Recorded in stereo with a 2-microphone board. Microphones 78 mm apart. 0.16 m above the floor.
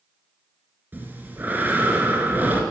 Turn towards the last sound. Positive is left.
turn(degrees=-25)  # may be behind; listen again after turning